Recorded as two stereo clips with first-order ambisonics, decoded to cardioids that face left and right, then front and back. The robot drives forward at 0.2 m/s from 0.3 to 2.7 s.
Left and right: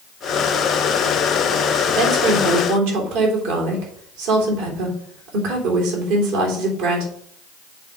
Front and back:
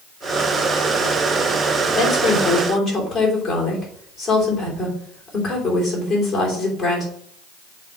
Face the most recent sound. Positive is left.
turn(degrees=-85)